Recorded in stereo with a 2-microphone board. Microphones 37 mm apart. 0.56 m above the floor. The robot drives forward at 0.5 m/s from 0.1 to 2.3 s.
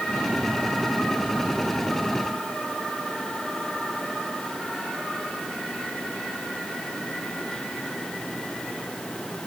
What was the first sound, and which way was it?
Only background noise.